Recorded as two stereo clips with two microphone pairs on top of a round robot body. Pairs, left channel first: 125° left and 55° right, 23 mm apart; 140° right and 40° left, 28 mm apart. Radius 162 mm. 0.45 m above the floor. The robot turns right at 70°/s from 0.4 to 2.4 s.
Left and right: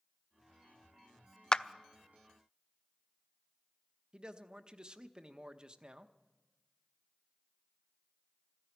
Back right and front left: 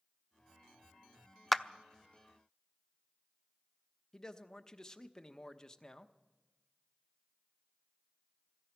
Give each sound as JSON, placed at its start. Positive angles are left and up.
{"t": 1.5, "sound": "a clap", "azimuth_deg": 140, "distance_m": 0.7}
{"t": 4.1, "sound": "a man speaking", "azimuth_deg": -90, "distance_m": 1.1}